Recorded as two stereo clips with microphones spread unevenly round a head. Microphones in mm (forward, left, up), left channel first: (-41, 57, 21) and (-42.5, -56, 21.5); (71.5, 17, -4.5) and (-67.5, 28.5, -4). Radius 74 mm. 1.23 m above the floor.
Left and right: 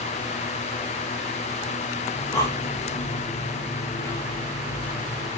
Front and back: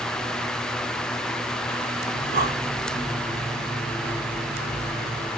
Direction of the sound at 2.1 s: 150° left.